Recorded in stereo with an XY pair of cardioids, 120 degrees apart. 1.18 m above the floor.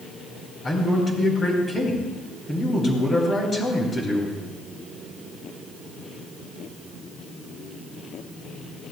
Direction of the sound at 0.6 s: 25° left.